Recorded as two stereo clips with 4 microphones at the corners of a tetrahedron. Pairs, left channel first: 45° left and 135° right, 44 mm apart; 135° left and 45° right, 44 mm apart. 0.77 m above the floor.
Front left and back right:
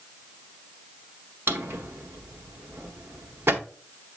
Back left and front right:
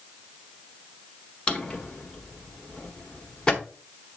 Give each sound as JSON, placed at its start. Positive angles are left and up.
{"t": 1.5, "sound": "a drawer", "azimuth_deg": -155, "distance_m": 1.0}